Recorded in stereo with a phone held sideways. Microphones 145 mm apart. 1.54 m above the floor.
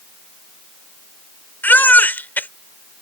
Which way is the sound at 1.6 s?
15° left (ahead or behind).